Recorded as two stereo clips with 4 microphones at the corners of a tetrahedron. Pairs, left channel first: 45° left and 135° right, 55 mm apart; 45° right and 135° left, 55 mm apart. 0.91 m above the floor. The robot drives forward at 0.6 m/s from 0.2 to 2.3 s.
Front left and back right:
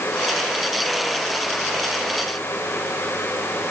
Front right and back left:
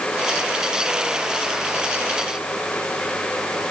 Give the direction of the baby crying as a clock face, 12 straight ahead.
No baby crying in this recording.